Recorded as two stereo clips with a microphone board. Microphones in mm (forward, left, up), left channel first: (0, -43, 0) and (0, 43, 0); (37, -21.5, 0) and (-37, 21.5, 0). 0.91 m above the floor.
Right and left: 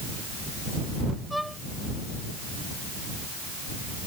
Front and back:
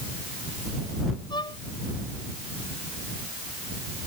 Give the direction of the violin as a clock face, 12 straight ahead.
12 o'clock.